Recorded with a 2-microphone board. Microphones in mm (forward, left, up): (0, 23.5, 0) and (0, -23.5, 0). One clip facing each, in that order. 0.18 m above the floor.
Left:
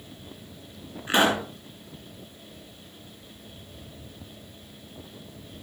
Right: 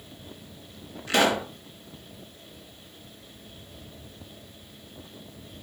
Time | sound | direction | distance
1.1 | a pop | 25° left (ahead or behind) | 2.5 m